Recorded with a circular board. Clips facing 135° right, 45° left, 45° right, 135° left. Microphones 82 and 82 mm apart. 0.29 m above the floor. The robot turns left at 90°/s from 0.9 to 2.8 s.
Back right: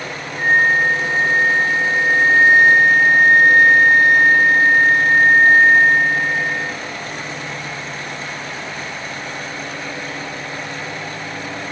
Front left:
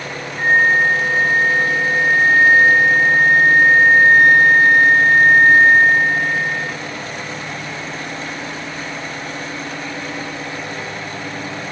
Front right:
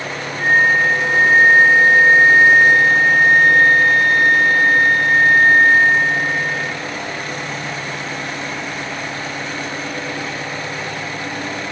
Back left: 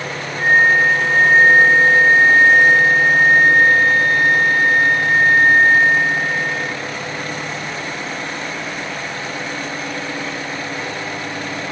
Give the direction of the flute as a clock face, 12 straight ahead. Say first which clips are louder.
Front left 1 dB, back left 1 dB; 8 o'clock.